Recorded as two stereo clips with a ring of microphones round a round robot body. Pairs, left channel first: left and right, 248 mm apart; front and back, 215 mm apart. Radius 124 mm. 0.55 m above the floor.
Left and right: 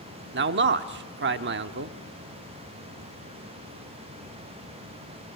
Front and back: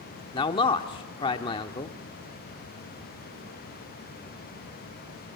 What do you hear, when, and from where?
0.3 s a man speaking: 65° right, 1.1 m